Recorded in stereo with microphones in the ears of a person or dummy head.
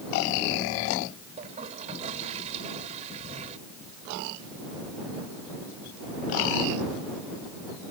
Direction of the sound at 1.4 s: 30° right (ahead or behind).